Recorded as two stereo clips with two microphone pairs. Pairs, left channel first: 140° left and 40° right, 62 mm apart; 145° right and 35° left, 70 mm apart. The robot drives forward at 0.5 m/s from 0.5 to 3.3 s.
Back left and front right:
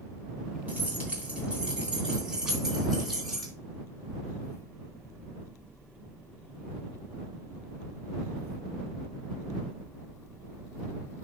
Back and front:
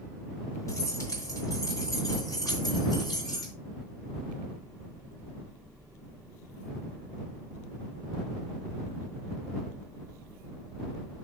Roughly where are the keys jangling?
Right.